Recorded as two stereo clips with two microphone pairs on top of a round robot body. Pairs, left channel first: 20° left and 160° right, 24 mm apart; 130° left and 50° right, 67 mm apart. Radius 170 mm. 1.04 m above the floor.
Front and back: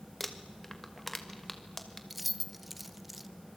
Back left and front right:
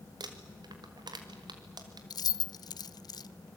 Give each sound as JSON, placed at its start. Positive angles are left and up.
{"t": 0.2, "sound": "crumpling", "azimuth_deg": -65, "distance_m": 2.0}
{"t": 2.1, "sound": "keys jangling", "azimuth_deg": 115, "distance_m": 0.5}